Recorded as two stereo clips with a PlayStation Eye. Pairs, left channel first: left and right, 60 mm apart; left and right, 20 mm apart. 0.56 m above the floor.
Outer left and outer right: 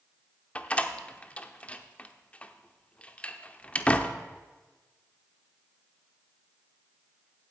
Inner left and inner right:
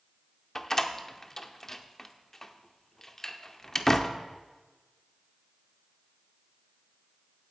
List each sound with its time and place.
0.6 s a door slam: 20° left (ahead or behind), 0.7 m